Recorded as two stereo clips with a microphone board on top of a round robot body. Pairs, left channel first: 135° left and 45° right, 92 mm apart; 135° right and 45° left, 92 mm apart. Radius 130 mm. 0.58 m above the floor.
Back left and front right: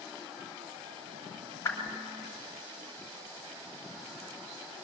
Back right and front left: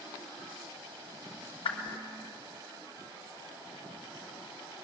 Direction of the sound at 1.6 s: 165° right.